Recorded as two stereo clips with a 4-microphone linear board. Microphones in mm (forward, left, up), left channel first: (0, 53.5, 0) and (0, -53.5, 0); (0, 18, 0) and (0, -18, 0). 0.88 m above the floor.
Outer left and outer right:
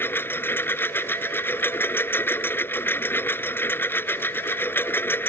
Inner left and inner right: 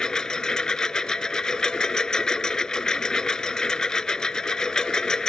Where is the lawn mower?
20° left (ahead or behind).